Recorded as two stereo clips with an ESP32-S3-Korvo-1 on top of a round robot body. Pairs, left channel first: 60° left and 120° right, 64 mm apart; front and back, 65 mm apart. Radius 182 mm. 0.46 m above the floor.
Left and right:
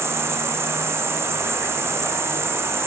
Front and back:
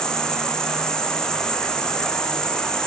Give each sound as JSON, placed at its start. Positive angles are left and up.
{"t": 0.0, "sound": "an insect", "azimuth_deg": -75, "distance_m": 1.7}